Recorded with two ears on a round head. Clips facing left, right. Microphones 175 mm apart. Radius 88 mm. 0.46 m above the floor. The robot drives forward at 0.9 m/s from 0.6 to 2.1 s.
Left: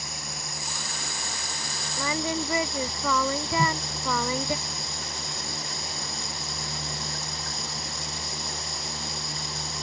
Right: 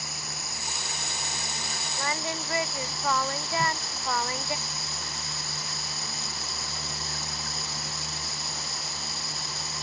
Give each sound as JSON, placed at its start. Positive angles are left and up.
{"t": 0.0, "sound": "running water", "side_deg": 0}
{"t": 2.0, "sound": "singing", "side_deg": 90}
{"t": 3.6, "sound": "a whoosh", "side_deg": 20}